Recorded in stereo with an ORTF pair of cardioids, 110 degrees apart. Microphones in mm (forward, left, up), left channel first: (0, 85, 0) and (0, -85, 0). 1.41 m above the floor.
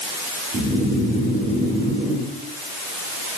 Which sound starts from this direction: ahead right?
Snoring, at 0.5 s.